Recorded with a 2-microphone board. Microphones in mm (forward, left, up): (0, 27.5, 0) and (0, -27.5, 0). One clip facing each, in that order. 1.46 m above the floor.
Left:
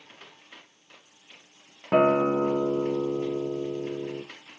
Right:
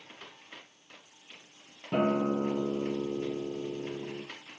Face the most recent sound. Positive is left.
turn(degrees=80)